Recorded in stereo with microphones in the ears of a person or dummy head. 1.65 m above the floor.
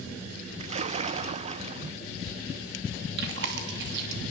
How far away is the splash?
About 0.9 m.